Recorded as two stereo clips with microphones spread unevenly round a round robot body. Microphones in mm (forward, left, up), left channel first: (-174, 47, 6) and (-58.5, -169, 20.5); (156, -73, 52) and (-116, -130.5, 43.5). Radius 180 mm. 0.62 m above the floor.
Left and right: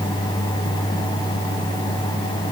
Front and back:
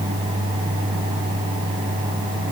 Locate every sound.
Only background noise.